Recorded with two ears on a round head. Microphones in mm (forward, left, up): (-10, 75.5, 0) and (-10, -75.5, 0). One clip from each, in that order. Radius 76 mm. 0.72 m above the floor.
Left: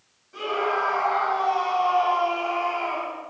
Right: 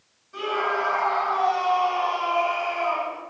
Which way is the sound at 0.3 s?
Centre (ahead or behind).